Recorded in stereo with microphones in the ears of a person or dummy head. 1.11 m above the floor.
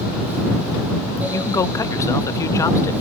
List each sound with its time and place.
1.3 s a man speaking: 20° left (ahead or behind)